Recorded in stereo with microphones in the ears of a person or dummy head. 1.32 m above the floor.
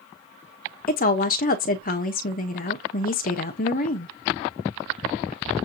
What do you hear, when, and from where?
0.9 s a woman speaking: 35° left (ahead or behind), 0.8 m